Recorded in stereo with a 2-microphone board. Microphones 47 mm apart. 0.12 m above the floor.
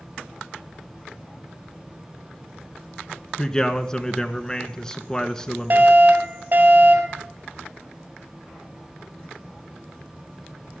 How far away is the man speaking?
About 1.1 m.